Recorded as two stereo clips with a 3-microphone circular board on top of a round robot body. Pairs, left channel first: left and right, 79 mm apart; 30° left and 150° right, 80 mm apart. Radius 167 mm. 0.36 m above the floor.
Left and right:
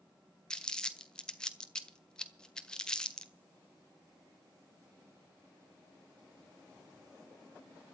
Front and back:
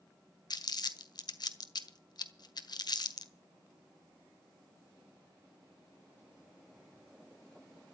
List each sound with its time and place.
0.5 s crumpling: 10° left, 1.7 m